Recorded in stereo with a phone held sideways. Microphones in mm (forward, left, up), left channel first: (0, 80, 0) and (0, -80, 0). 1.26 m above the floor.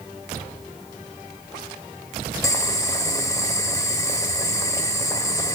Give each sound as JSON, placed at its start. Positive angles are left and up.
{"t": 2.4, "sound": "boiling", "side_deg": 20, "distance_m": 1.3}